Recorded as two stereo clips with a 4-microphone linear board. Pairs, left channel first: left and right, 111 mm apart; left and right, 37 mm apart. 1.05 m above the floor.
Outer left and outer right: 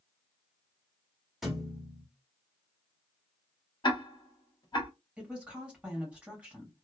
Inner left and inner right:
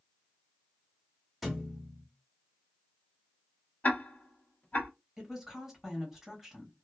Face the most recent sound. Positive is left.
turn(degrees=-10)  # may be behind; listen again after turning